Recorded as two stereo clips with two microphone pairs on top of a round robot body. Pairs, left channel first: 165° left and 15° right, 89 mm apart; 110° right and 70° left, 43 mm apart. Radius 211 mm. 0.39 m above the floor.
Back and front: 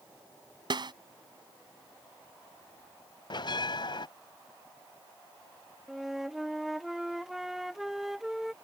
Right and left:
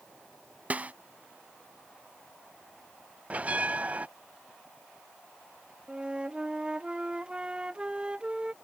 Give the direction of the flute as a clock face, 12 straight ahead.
10 o'clock.